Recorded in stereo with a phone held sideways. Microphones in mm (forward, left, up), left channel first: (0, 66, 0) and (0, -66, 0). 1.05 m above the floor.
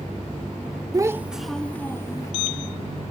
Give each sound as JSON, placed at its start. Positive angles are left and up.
{"t": 0.9, "sound": "a child speaking", "side_deg": -30}